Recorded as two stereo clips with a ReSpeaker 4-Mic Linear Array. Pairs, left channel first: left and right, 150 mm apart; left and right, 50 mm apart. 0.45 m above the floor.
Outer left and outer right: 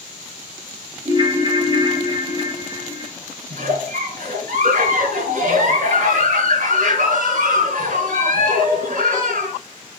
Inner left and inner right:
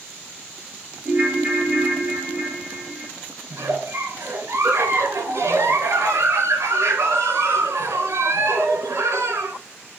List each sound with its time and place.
1.1 s a ringtone: 25° right (ahead or behind), 3 m
3.5 s a giggle: 75° right (ahead or behind), 3.5 m